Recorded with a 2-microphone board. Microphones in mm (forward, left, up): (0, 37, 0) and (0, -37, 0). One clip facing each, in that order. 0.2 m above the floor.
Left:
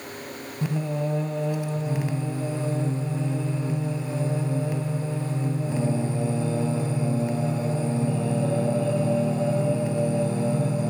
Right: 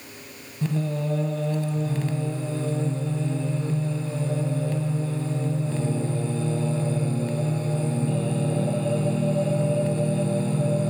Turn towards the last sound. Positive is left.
turn(degrees=15)  # may be behind; listen again after turning